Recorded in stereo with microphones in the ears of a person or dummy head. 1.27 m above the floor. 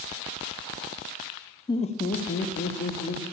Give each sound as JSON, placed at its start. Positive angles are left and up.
{"t": 1.7, "sound": "laughter", "side_deg": 20, "distance_m": 0.6}